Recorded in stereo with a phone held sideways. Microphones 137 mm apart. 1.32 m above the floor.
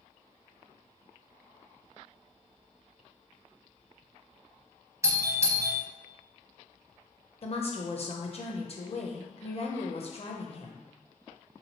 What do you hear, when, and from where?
5.0 s a doorbell: 20° right (ahead or behind), 0.7 m
7.4 s a woman speaking: 45° left (ahead or behind), 0.7 m